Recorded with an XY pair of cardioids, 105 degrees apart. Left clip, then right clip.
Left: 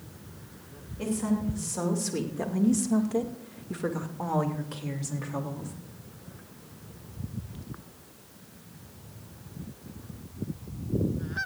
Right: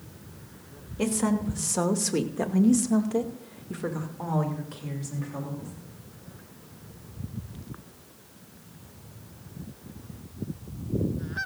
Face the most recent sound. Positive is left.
turn(degrees=35)